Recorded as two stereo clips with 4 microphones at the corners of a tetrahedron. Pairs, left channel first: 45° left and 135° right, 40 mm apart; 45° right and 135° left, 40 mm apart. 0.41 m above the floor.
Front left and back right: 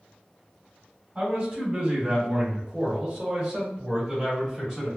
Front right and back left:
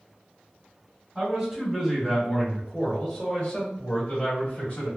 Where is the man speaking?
Straight behind, 1.5 m; by 4.9 s 40° right, 1.8 m.